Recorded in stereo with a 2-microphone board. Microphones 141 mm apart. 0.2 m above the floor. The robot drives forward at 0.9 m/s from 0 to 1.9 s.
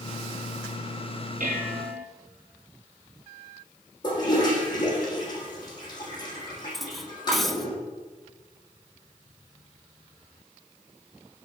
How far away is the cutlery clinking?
About 0.9 m.